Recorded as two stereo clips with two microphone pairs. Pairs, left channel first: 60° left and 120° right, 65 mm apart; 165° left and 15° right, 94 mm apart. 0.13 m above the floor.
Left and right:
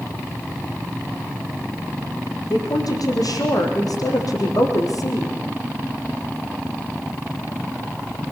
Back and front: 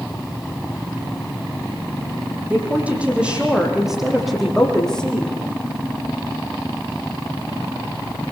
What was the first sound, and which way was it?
A woman speaking, 55° left.